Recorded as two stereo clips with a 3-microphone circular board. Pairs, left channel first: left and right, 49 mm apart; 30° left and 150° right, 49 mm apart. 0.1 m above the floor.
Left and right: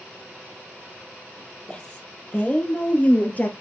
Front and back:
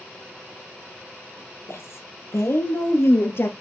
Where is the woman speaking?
25° left, 4 m; by 3.5 s 40° left, 2.5 m.